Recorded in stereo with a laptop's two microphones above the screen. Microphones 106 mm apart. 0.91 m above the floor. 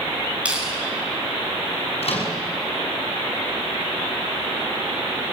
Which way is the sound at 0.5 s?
10° right (ahead or behind).